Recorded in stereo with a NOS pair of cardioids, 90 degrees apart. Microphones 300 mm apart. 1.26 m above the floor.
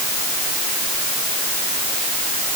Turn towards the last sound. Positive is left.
No sound to turn to.